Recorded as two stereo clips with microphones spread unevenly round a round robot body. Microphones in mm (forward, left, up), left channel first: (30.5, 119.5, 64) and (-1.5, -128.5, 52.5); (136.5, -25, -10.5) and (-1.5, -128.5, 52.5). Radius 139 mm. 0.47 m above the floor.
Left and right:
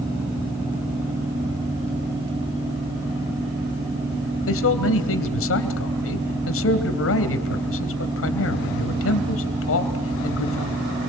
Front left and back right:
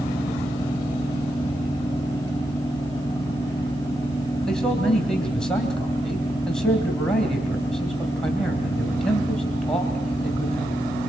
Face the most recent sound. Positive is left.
turn(degrees=120)